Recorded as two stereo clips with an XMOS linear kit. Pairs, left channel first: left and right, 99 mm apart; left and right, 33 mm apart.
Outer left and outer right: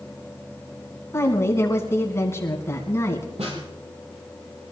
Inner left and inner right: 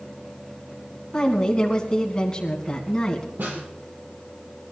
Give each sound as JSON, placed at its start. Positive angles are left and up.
{"t": 1.1, "sound": "a woman speaking", "side_deg": 25, "distance_m": 2.5}
{"t": 3.4, "sound": "a snare drum", "side_deg": -75, "distance_m": 4.5}